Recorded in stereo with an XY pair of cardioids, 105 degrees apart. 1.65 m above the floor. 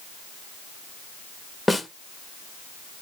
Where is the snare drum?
10° left, 0.8 m.